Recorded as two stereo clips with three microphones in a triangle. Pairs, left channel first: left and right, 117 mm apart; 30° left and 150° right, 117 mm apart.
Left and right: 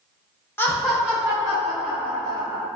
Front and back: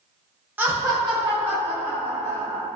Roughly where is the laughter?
Behind left.